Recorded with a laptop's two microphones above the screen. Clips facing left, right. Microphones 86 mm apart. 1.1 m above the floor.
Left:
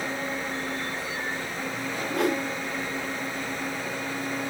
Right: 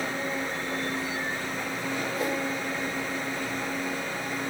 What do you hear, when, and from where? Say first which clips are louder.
2.1 s a whoosh: left 7 dB; 70° left (ahead or behind), 2.5 m